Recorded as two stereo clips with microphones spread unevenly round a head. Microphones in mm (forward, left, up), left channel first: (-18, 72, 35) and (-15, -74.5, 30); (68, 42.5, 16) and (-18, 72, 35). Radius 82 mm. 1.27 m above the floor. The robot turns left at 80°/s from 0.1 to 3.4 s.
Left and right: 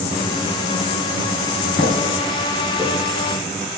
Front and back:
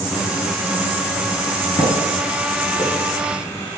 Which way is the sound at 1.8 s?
20° left.